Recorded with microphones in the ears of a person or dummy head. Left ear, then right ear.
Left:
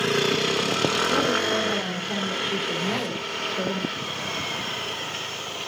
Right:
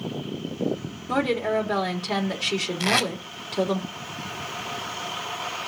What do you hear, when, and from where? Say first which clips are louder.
1.1 s a woman speaking: left 2 dB; 65° right (ahead or behind), 2.5 m
2.8 s tape being pulled: right 5 dB; 70° right (ahead or behind), 2.5 m